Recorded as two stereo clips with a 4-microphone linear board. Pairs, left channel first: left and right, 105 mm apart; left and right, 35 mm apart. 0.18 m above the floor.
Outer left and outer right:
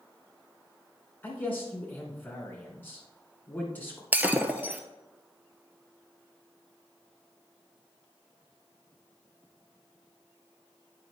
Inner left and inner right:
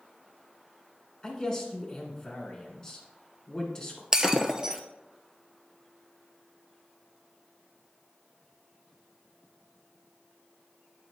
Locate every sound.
1.2 s a man speaking: 20° left (ahead or behind), 2.5 m
4.1 s breaking glass: 20° right (ahead or behind), 0.6 m